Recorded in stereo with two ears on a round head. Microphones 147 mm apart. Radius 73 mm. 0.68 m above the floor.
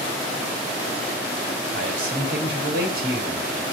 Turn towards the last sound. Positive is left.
turn(degrees=-65)  # may be behind; listen again after turning